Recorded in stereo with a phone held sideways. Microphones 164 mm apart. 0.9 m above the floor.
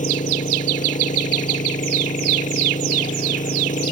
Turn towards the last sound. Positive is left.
turn(degrees=50)  # may be behind; listen again after turning